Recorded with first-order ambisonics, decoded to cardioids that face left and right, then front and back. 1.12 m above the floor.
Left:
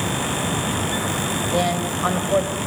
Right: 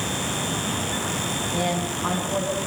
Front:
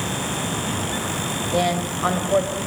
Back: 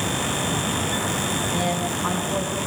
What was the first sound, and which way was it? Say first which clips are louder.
A woman speaking: left 6 dB, front 2 dB; 40° left.